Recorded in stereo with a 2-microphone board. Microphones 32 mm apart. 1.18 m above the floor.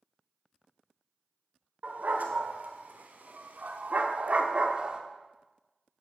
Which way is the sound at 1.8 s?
60° right (ahead or behind).